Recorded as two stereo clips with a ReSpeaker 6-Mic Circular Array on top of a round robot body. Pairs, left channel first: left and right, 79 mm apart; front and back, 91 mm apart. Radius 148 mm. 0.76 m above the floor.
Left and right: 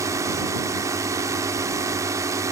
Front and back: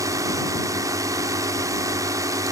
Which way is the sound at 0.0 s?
135° right.